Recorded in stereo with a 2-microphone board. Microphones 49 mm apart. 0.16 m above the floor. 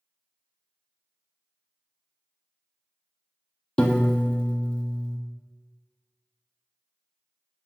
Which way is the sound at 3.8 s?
15° left (ahead or behind).